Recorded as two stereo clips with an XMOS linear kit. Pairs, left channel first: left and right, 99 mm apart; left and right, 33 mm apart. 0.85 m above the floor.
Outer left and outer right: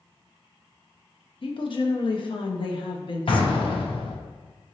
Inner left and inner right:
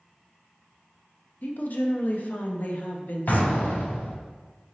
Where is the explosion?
60° left (ahead or behind), 0.6 m.